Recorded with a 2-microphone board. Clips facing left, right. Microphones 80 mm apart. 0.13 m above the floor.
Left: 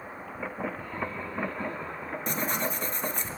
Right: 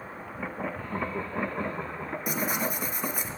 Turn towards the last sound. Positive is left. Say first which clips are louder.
# right 1 dB
turn(degrees=-10)  # may be behind; listen again after turning